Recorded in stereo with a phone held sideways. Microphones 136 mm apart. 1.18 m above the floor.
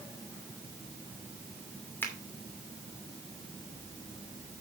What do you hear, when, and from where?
2.0 s a finger snap: 15° left (ahead or behind), 2.5 m